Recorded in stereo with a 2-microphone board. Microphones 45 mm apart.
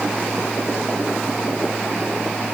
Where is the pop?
I don't hear a pop.